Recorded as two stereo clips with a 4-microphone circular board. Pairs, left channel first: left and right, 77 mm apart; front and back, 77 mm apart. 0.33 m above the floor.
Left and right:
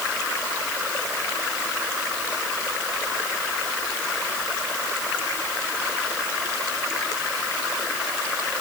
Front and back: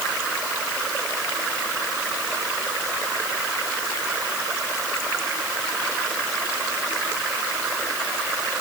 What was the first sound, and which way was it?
Only background noise.